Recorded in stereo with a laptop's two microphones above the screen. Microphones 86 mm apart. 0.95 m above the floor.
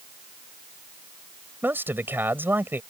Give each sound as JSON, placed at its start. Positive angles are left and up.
{"t": 1.6, "sound": "a man speaking", "side_deg": -25}